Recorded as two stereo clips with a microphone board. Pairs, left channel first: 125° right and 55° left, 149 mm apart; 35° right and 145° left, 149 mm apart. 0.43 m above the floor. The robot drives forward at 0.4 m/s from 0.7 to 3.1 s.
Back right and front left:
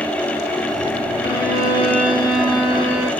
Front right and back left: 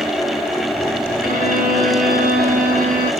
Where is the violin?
Straight behind, 3 m.